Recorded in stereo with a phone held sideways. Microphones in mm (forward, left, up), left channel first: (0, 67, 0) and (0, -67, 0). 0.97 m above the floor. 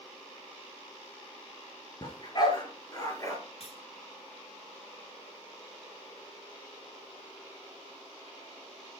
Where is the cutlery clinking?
55° left (ahead or behind), 5.5 m.